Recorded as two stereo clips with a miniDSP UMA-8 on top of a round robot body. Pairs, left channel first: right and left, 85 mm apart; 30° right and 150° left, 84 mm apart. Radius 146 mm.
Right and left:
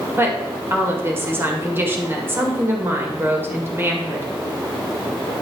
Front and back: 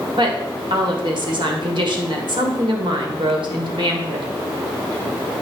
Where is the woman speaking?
150° left, 2 m.